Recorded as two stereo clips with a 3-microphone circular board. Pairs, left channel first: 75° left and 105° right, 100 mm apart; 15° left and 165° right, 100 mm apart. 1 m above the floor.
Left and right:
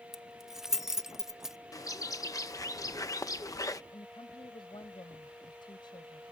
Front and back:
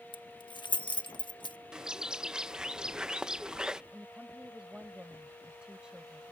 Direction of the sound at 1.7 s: 115° left.